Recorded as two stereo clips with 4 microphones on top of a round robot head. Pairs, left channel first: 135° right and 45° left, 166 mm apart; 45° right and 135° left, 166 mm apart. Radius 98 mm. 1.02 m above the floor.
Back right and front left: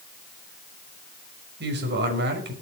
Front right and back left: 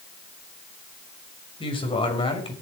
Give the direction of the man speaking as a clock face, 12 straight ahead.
11 o'clock.